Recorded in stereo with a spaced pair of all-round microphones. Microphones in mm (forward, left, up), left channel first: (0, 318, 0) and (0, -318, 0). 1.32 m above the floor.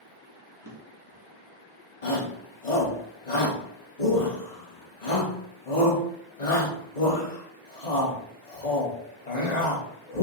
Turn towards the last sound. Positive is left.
turn(degrees=75)  # may be behind; listen again after turning